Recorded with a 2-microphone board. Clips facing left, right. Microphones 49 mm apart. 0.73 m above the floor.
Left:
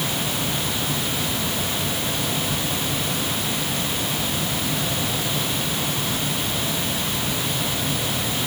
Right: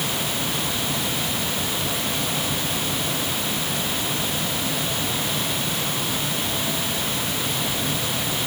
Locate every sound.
Only background noise.